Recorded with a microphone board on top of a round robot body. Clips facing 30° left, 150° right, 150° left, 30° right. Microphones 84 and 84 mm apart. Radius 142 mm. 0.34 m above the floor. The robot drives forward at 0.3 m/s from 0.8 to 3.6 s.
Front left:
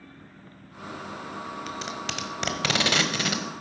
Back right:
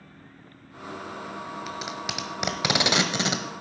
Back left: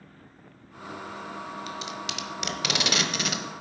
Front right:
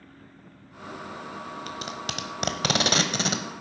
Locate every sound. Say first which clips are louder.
1.7 s tape being pulled: even, even; 65° right, 1.4 m; by 3.4 s 85° right, 1.3 m